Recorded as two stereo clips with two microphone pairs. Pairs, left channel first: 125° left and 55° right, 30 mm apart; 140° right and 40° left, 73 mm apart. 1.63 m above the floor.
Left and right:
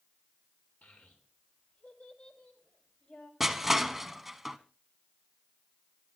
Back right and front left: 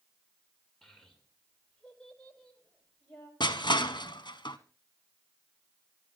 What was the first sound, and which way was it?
A child speaking, 140° left.